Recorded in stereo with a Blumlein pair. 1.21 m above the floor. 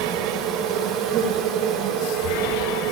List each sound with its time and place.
0.0 s an insect: 35° right, 5.5 m